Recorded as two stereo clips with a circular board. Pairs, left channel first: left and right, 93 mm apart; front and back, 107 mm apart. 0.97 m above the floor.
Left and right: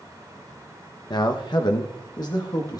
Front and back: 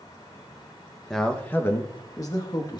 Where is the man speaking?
85° left, 0.6 m; by 2.8 s 45° left, 1.3 m.